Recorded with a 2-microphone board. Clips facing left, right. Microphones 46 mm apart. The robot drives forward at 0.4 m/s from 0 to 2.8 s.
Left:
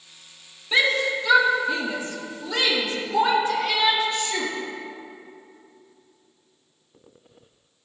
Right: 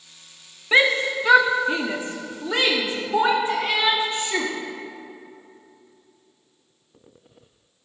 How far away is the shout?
About 0.8 m.